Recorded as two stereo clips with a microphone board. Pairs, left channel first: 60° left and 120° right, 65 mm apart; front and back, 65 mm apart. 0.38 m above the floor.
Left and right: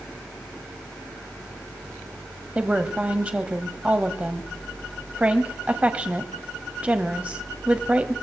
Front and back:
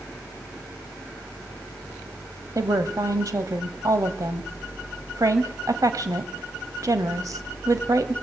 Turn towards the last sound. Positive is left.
turn(degrees=175)